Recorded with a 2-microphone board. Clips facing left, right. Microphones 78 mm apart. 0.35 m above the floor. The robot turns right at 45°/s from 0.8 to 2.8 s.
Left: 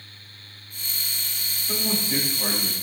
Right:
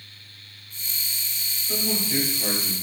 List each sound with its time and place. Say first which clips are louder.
1.7 s a man speaking: even; 70° left, 1.2 m; by 2.7 s 120° left, 1.2 m